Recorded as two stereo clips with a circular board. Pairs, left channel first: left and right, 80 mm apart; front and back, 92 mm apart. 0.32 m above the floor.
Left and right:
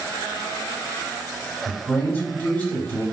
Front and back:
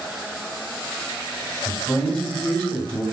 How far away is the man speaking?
About 1.4 m.